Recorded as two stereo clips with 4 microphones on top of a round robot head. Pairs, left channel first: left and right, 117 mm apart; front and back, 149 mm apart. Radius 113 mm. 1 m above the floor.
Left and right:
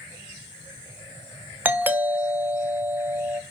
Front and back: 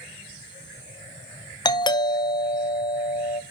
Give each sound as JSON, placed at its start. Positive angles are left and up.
{"t": 1.6, "sound": "a doorbell", "azimuth_deg": -30, "distance_m": 0.6}